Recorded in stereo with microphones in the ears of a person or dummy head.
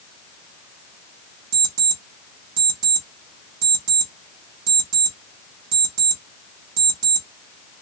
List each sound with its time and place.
1.5 s an alarm clock: 60° right (ahead or behind), 1.2 m